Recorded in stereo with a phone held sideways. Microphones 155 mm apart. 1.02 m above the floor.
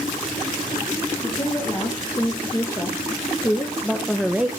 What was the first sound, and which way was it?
A woman speaking, 25° left (ahead or behind).